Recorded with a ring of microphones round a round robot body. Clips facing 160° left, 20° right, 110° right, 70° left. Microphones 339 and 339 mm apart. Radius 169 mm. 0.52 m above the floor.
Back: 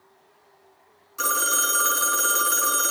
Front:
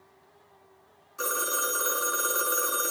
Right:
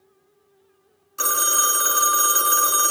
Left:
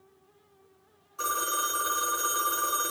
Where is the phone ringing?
135° right, 0.9 m.